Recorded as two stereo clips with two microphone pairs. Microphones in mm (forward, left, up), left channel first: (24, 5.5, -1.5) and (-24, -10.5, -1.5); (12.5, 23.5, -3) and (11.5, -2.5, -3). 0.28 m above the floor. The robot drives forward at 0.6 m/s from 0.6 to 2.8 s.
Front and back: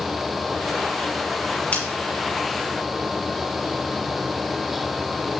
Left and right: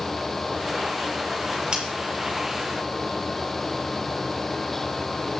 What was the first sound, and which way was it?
Scissors, 35° right.